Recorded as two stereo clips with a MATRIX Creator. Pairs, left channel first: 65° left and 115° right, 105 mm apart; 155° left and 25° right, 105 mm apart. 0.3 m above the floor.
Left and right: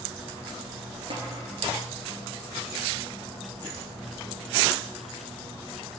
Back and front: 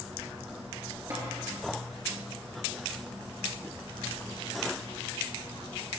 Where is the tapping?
85° right, 2 m.